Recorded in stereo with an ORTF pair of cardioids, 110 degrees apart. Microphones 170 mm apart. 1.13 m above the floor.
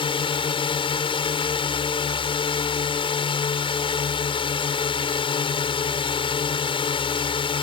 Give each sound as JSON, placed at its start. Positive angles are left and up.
{"t": 0.0, "sound": "a drone", "azimuth_deg": 30}